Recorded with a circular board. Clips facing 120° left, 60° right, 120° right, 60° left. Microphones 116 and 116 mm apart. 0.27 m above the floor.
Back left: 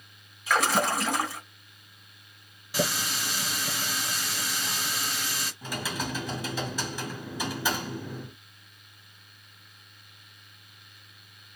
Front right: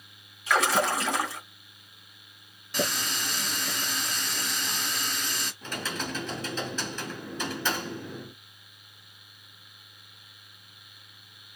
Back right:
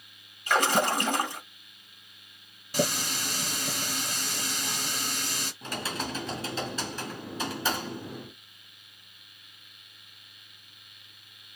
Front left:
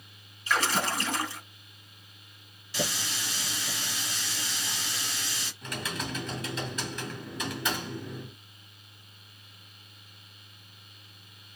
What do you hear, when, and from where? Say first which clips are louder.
0.5 s a splash: even, back right 4 dB; 150° right, 2.5 m
2.7 s a running tap: back left 1 dB, back right 5 dB; 155° right, 2 m
5.6 s typing on a keyboard: back left 2 dB, back right 1 dB; 165° right, 2 m